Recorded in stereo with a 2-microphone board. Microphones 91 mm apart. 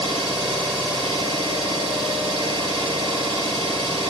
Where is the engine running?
75° right (ahead or behind), 2 m.